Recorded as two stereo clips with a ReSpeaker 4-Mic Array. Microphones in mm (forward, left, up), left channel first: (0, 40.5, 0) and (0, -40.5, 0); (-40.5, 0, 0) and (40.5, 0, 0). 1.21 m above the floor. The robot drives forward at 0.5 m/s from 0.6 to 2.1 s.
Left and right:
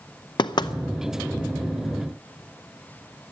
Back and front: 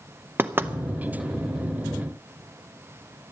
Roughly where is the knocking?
Ahead left.